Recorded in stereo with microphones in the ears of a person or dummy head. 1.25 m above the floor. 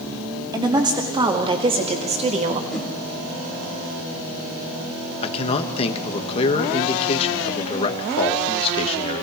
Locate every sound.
0.5 s a woman speaking: 20° right (ahead or behind), 2.5 m; by 2.6 s 40° right (ahead or behind), 1.8 m
2.7 s a whoosh: 5° left (ahead or behind), 4 m
5.2 s a man speaking: 30° left (ahead or behind), 1.6 m